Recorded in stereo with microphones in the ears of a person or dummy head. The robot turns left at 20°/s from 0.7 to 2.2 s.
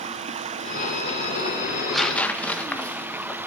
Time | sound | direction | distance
0.0 | running water | 140° right | 0.8 m
1.7 | tearing paper | centre (ahead or behind) | 1.1 m